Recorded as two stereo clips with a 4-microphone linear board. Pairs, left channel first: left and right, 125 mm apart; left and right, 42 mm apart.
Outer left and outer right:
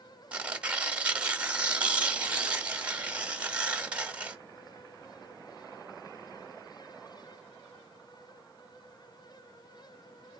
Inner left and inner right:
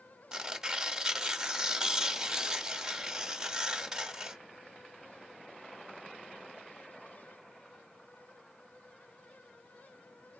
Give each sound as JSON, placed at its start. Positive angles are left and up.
{"t": 0.3, "sound": "tearing paper", "side_deg": -10, "distance_m": 1.7}